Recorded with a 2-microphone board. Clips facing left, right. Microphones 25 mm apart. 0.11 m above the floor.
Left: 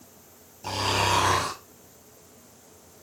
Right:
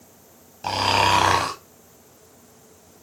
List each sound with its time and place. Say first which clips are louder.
0.6 s snoring: right 6 dB; 55° right (ahead or behind), 3.5 m